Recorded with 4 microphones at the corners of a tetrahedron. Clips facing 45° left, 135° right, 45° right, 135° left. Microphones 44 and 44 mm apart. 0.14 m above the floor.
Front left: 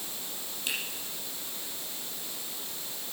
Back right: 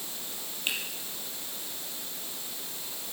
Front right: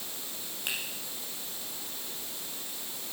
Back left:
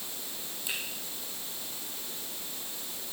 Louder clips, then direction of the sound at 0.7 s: Back right 2 dB, front right 2 dB; 75° right.